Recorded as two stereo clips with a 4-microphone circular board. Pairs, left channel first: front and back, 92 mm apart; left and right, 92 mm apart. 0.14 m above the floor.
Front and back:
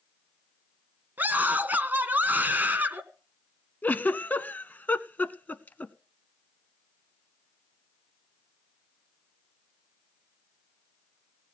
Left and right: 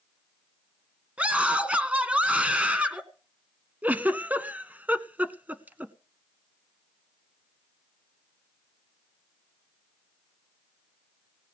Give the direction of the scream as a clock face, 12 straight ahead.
5 o'clock.